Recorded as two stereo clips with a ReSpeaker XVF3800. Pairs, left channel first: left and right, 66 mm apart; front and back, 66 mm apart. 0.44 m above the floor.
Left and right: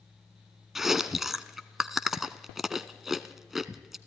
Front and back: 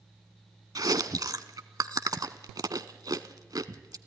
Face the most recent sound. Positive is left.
turn(degrees=-175)